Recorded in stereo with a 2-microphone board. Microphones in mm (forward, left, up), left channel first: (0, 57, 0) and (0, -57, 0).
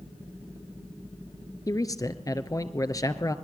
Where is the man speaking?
30° left (ahead or behind), 1.7 m.